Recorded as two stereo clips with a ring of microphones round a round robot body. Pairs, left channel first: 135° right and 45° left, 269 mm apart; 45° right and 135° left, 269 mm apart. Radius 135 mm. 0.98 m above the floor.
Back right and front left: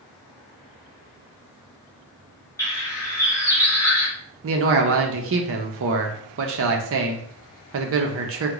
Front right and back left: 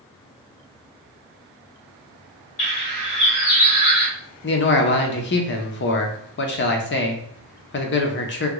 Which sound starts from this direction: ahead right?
A bird, at 2.6 s.